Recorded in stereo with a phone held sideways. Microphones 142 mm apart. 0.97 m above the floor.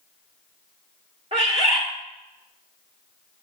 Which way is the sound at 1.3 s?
45° right (ahead or behind).